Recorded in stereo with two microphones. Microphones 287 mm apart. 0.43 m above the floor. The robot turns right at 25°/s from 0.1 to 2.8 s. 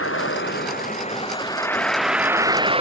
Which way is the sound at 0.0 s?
130° left.